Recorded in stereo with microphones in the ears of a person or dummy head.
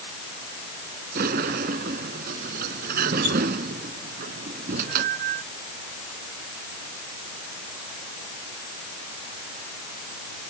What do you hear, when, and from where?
1.1 s a sliding door: 50° right (ahead or behind)